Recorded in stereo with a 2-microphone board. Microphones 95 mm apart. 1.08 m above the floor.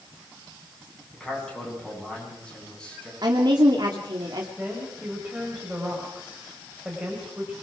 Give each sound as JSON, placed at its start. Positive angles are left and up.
{"t": 1.1, "sound": "a man speaking", "side_deg": 10, "distance_m": 10.0}
{"t": 3.2, "sound": "a woman speaking", "side_deg": -50, "distance_m": 2.0}
{"t": 4.6, "sound": "a woman speaking", "side_deg": -10, "distance_m": 5.0}